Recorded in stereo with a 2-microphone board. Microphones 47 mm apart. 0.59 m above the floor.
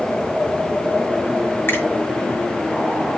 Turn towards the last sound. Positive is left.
turn(degrees=55)  # may be behind; listen again after turning